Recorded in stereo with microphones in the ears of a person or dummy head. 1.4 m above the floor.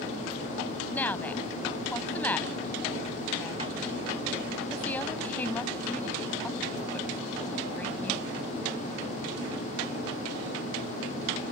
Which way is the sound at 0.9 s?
10° left (ahead or behind).